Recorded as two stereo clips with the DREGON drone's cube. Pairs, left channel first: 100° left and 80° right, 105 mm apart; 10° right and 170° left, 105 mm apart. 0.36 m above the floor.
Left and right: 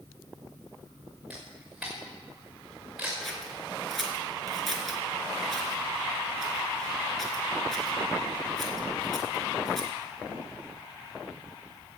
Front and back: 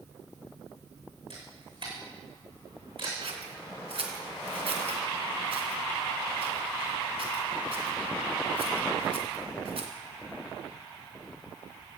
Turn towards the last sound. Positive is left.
turn(degrees=-170)